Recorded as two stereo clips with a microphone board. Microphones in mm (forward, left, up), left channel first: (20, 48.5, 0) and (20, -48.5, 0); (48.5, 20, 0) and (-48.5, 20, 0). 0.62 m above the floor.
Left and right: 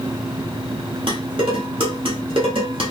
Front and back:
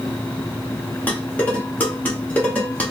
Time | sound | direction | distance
1.1 | dishes clattering | 70° right | 1.2 m